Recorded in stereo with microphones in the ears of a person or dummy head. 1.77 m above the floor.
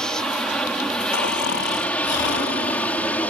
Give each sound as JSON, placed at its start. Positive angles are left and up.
{"t": 0.0, "sound": "an aircraft", "side_deg": 0}
{"t": 1.1, "sound": "snoring", "side_deg": 65}